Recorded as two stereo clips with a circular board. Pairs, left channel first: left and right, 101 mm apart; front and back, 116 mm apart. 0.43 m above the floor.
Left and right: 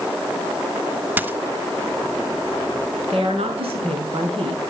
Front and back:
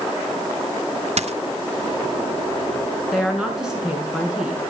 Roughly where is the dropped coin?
Behind.